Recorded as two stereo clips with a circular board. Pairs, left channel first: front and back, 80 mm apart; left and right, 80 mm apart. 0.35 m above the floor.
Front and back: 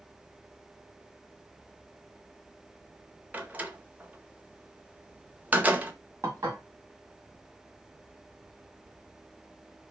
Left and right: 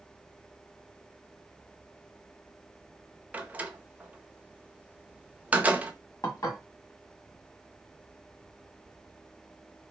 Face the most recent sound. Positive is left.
turn(degrees=130)